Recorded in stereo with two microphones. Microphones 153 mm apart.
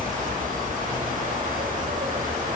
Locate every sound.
0.0 s an insect: 60° right (ahead or behind), 4 m